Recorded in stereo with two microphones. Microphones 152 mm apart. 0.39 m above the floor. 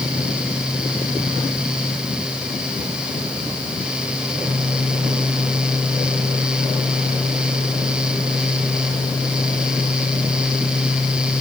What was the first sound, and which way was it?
Only background noise.